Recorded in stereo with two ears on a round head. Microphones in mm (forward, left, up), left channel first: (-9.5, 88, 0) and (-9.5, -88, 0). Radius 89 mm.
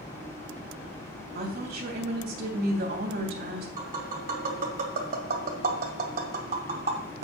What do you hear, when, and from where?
1.4 s a woman speaking: 55° right (ahead or behind), 3 m
3.8 s tapping: 50° right (ahead or behind), 2 m